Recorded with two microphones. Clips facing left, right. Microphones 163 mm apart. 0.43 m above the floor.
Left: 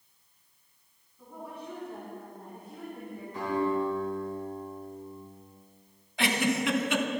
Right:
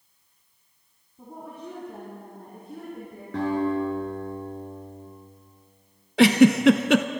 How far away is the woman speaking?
About 3.5 m.